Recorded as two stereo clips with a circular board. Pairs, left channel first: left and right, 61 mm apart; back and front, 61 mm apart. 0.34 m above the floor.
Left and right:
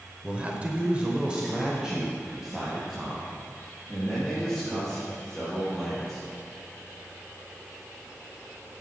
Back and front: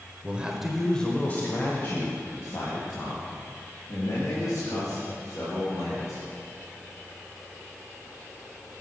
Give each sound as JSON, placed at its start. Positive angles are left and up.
{"t": 0.2, "sound": "a man speaking", "azimuth_deg": -35, "distance_m": 1.0}